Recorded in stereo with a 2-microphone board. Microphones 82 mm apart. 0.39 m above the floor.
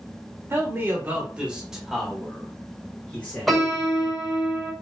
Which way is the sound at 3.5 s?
Centre (ahead or behind).